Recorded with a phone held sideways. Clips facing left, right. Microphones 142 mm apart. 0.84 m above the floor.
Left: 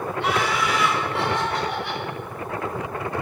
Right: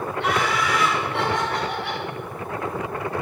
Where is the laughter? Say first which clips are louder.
Even; 70° right (ahead or behind), 4 m; by 2.0 s 85° right, 4.5 m.